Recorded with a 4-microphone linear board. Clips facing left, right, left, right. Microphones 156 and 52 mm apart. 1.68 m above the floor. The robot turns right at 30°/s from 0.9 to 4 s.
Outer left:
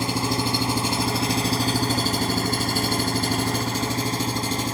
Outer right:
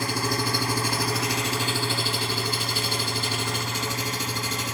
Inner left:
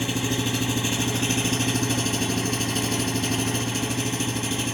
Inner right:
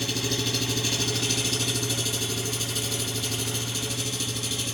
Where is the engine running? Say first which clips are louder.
Outer left 3 dB, inner left 3 dB; 40° left, 1.3 m; by 4.7 s 130° left, 1.3 m.